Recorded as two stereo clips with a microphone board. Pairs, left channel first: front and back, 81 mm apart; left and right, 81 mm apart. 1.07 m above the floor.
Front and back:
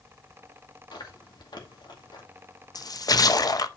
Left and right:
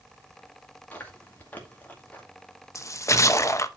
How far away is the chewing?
About 2 m.